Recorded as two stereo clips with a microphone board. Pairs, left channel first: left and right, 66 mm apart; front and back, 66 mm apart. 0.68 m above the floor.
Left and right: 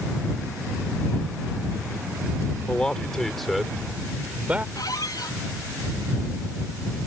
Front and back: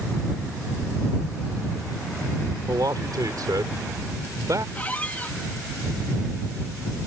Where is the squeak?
65° left.